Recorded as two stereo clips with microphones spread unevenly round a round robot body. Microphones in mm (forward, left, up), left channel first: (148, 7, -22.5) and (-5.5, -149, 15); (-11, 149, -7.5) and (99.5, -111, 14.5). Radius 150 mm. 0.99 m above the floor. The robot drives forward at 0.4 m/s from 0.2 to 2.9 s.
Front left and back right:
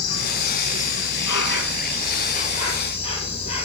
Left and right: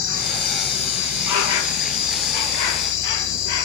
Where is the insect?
75° left, 1.7 m; by 3.6 s 120° left, 1.8 m.